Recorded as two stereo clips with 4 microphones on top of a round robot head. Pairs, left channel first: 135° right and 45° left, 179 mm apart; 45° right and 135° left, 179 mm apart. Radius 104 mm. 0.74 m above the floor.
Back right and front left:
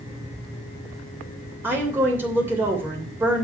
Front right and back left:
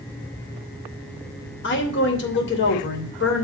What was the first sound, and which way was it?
A woman speaking, 35° right.